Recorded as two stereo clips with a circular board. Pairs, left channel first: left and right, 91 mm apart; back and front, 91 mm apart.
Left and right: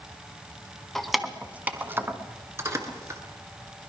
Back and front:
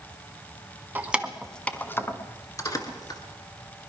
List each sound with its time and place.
0.9 s keys jangling: 5° left, 0.8 m; by 3.2 s 145° right, 1.6 m